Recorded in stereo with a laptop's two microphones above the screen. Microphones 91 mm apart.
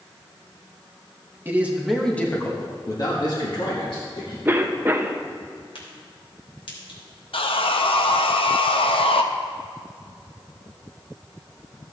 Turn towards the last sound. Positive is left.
turn(degrees=75)  # may be behind; listen again after turning